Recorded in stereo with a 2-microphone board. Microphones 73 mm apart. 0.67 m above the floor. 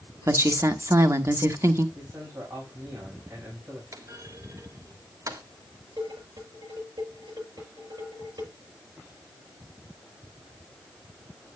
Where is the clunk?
55° right (ahead or behind), 1.5 m.